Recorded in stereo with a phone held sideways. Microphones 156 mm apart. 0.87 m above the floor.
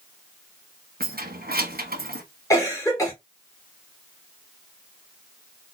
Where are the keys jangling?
70° right (ahead or behind), 1.0 m.